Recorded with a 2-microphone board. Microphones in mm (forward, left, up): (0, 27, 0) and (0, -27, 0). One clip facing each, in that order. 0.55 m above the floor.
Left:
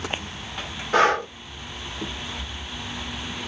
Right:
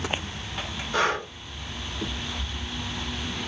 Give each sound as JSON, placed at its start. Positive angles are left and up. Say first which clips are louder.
{"t": 0.9, "sound": "breathing", "louder": "left 6 dB", "side_deg": 65, "distance_m": 0.8}